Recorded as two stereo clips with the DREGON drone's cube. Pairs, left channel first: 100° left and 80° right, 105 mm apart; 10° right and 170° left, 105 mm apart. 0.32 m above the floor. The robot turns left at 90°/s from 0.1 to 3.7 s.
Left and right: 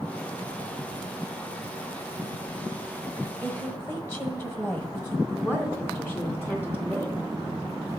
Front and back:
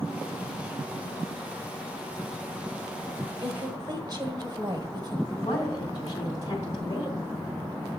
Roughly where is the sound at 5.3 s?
Ahead left.